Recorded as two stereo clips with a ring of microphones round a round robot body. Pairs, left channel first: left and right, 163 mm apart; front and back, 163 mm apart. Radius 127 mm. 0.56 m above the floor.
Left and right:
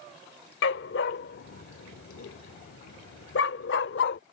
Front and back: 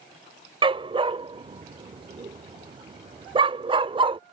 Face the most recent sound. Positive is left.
turn(degrees=115)